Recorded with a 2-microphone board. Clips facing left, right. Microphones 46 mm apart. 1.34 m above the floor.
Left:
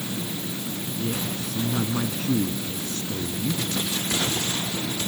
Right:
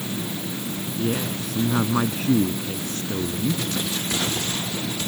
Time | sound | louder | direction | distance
1.0 | a woman speaking | right 4 dB | 45° right (ahead or behind) | ?